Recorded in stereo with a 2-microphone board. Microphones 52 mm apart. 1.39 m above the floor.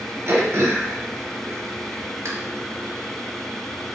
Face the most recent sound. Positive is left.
turn(degrees=-55)  # may be behind; listen again after turning